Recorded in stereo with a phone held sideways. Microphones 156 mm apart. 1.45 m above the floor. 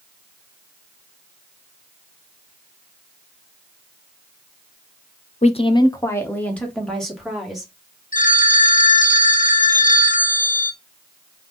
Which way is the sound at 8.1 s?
60° left (ahead or behind).